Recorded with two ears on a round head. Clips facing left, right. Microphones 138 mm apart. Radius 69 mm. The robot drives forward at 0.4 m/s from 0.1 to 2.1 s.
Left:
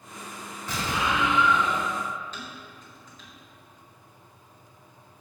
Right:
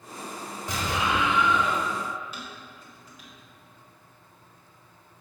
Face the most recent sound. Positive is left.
turn(degrees=-10)  # may be behind; listen again after turning